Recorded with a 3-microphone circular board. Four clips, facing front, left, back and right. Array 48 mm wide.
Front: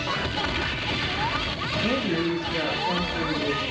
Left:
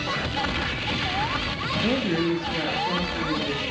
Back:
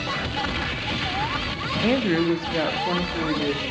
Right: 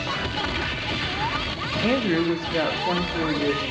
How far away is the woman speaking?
About 1.3 m.